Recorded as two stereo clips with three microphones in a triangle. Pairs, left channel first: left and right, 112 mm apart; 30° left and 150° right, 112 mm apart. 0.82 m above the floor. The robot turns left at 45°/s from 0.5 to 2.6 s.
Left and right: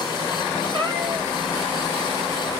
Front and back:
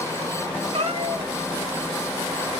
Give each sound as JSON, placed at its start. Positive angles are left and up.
{"t": 0.7, "sound": "a cat meowing", "azimuth_deg": -135, "distance_m": 2.5}